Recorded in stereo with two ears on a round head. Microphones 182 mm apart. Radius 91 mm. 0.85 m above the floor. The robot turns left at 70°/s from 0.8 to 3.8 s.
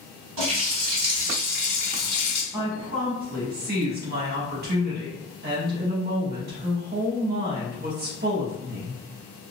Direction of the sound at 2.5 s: 15° right.